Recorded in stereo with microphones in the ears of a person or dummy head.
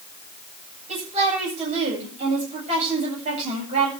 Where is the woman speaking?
35° right (ahead or behind), 9 m.